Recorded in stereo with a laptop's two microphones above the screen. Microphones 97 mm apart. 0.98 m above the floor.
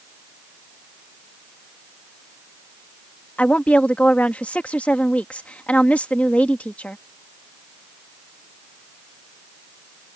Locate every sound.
3.4 s a woman speaking: 15° left (ahead or behind)